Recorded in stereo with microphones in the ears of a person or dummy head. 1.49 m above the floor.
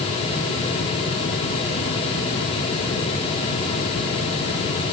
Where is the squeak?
I don't hear a squeak.